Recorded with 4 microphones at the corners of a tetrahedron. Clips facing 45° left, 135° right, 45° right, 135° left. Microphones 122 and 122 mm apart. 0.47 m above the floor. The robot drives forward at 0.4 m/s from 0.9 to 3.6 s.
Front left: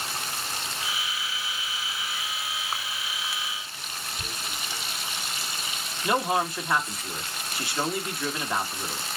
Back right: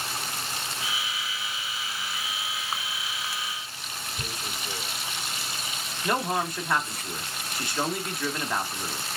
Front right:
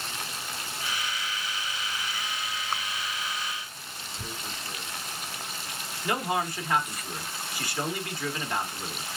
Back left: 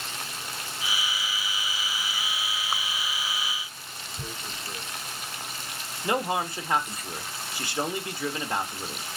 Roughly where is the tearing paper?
Behind.